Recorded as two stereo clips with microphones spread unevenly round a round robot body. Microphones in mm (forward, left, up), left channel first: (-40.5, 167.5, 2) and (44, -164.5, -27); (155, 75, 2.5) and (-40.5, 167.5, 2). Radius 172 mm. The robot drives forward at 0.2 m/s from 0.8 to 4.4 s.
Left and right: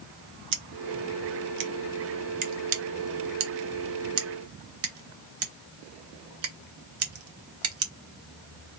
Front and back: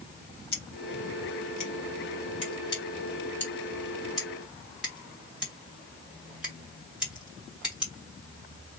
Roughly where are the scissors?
Right.